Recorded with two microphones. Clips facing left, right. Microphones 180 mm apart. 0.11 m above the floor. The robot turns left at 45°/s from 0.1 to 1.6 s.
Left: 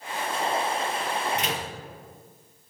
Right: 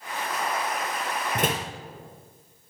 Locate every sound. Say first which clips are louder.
1.4 s a door slam: right 3 dB; 50° right (ahead or behind), 1.9 m; by 1.7 s 45° right (ahead or behind), 1.9 m